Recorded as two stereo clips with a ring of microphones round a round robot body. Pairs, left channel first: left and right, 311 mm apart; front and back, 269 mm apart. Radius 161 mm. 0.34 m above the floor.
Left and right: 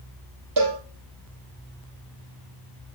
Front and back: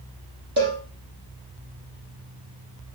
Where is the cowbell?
120° right, 5.5 m.